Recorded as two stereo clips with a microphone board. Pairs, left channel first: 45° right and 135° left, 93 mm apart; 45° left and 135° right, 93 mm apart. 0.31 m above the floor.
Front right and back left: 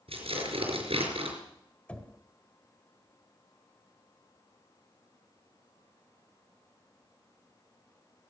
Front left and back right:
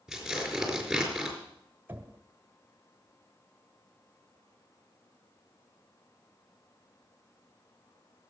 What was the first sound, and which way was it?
Tearing paper, 135° left.